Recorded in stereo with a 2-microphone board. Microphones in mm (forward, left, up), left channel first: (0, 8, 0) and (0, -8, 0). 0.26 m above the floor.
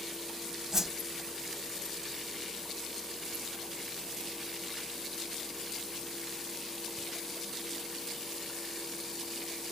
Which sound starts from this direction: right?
A whoosh, at 0.7 s.